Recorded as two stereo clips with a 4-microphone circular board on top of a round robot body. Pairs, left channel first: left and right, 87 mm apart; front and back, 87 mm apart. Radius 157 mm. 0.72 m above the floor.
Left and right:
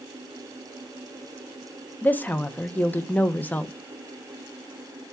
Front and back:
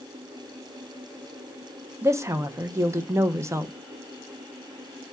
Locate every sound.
2.0 s a woman speaking: 150° left, 0.6 m